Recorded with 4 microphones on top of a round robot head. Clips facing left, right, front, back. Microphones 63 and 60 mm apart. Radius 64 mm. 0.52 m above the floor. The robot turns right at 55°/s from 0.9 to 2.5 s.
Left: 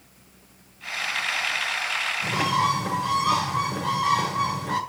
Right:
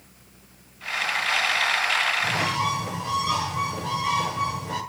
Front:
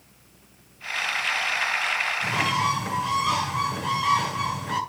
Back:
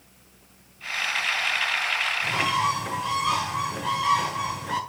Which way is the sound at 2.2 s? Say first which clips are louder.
Left 2 dB, even; 70° left.